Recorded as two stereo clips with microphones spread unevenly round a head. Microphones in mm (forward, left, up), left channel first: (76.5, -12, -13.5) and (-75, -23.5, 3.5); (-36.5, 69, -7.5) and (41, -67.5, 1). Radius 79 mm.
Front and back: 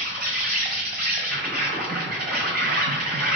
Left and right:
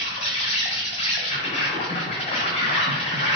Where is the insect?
175° left, 1.3 m.